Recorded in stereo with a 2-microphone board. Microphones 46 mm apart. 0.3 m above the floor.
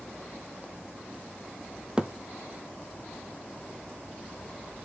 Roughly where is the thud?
Right.